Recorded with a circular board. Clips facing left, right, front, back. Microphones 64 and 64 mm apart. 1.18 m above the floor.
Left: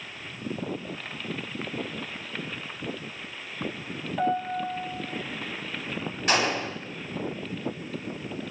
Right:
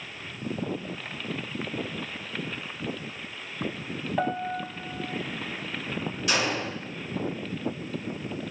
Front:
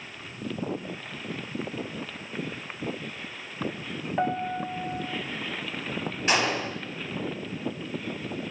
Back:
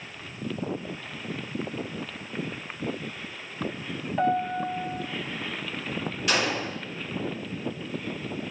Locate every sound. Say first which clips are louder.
4.2 s a piano: left 3 dB, back 3 dB; 55° right, 0.7 m
6.3 s a gunshot: left 3 dB, front 2 dB; 50° left, 3.5 m